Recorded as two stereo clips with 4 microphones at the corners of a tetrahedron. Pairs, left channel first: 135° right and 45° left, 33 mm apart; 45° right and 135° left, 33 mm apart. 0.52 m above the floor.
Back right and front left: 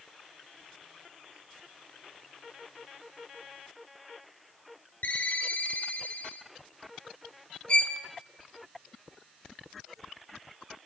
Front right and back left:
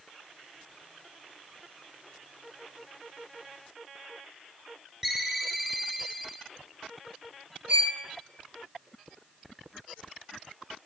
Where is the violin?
170° left, 1.0 m.